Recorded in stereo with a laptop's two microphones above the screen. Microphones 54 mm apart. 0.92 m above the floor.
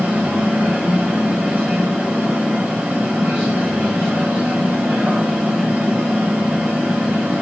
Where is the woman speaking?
No woman speaking in this recording.